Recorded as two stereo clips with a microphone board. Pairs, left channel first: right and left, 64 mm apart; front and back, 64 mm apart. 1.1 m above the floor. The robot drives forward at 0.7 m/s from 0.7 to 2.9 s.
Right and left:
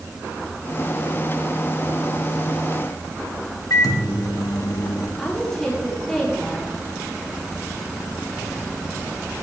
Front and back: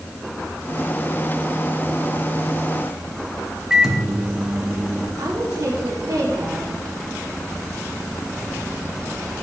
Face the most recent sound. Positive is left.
turn(degrees=-170)